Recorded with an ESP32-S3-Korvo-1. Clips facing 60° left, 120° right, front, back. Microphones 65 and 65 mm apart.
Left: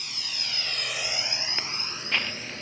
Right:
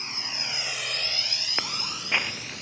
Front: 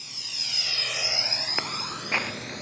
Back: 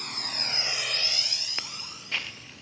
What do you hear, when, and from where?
0.0 s a drone: 175° right; by 2.6 s 5° left
1.6 s footsteps: 55° right; by 2.6 s 40° right